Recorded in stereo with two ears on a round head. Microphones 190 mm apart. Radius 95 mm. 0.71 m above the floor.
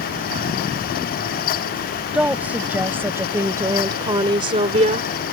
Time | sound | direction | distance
2.1 | a woman speaking | 5° right (ahead or behind) | ?